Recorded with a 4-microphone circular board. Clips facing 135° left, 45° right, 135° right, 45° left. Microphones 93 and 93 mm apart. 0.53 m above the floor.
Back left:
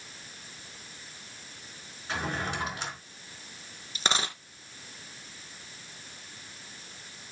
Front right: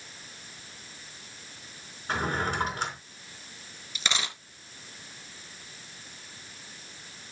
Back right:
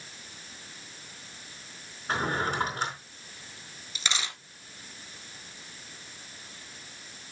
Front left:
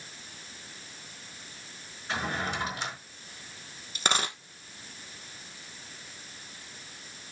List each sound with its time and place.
2.1 s a drawer: 90° right, 4 m
4.0 s a dropped coin: 85° left, 1.4 m